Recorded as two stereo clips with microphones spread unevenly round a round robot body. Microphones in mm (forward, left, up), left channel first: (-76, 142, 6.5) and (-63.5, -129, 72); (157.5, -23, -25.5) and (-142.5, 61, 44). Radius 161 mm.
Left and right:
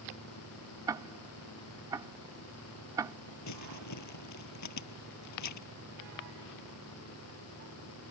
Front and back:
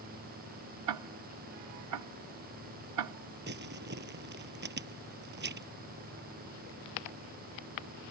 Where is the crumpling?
105° left.